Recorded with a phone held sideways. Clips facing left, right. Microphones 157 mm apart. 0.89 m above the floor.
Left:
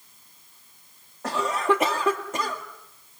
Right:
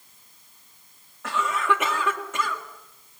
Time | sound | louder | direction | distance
1.2 | a cough | left 2 dB | 35° left (ahead or behind) | 1.8 m